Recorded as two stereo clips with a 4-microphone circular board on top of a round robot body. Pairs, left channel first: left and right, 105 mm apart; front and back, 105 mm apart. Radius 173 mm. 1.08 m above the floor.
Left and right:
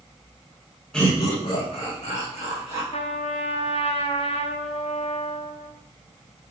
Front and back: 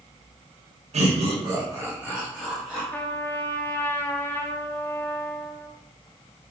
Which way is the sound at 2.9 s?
75° left.